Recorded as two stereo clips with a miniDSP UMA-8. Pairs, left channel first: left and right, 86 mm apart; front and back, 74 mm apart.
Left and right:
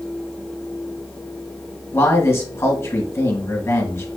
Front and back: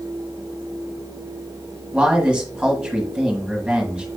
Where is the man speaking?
115° left, 1.3 m.